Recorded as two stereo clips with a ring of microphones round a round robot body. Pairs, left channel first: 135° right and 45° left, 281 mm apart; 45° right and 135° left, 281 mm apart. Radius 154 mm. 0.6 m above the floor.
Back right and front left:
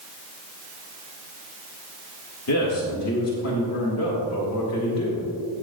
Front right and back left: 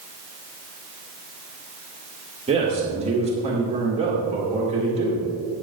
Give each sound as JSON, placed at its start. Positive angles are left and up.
{"t": 2.5, "sound": "a man speaking", "azimuth_deg": -160, "distance_m": 2.0}